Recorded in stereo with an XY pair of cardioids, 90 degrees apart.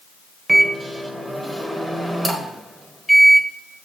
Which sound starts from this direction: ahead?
A microwave, at 0.5 s.